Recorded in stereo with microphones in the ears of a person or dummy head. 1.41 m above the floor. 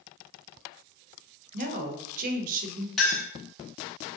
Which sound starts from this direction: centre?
A clink, at 3.0 s.